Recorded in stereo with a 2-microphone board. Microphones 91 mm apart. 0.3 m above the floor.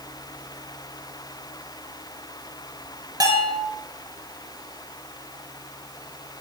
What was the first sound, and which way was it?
A bell, 45° right (ahead or behind).